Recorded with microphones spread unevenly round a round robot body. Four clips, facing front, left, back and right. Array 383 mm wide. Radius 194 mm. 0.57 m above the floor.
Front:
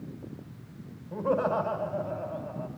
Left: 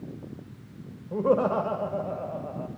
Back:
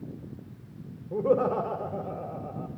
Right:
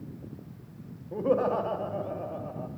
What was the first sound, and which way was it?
Laughter, 165° left.